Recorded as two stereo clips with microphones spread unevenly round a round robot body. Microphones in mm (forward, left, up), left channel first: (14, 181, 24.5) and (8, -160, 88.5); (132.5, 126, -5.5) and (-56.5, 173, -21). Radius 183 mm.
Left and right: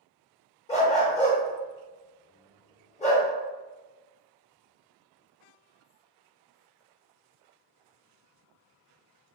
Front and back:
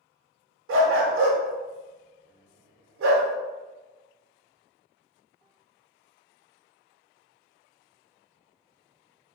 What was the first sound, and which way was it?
A dog barking, 165° left.